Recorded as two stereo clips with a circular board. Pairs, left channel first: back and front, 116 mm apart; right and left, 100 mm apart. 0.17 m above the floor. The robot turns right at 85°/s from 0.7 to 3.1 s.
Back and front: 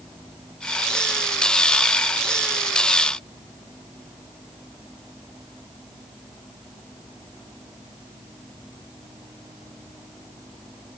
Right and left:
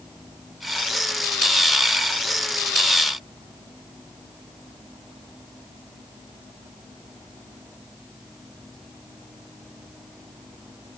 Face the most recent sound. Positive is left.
No sound to turn to.